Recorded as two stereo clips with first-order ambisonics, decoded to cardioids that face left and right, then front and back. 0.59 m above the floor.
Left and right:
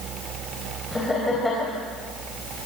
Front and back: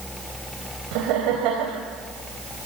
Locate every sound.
0.9 s laughter: 170° left, 3.5 m